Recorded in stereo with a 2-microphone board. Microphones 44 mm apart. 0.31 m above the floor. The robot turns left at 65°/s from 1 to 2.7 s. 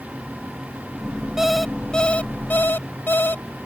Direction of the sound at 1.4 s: 165° right.